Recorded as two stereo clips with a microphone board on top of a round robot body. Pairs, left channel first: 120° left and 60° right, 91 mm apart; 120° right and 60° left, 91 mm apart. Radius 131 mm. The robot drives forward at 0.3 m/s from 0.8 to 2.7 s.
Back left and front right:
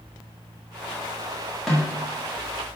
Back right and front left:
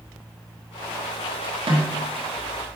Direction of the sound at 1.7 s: 35° left.